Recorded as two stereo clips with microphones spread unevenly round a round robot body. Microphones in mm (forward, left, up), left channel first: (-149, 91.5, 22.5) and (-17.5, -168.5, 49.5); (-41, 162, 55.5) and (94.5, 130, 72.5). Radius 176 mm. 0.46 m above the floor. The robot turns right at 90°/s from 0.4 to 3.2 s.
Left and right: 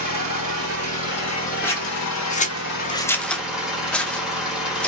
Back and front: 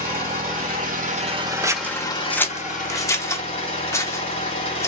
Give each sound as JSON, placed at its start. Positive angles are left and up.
{"t": 0.0, "sound": "an engine running", "azimuth_deg": -45, "distance_m": 1.3}
{"t": 1.6, "sound": "scissors", "azimuth_deg": 50, "distance_m": 0.5}